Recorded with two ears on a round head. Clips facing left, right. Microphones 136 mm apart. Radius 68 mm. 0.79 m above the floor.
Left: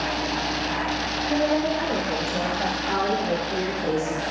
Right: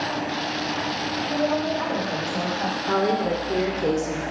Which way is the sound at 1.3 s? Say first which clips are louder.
Left 2 dB; 30° left (ahead or behind).